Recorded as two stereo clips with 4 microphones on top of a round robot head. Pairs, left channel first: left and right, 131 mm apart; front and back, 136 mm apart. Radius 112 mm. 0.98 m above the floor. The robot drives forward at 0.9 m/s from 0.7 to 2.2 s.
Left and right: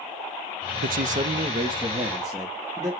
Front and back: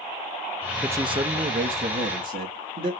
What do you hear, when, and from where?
0.8 s a man speaking: 95° right, 0.5 m; by 2.9 s 160° right, 1.4 m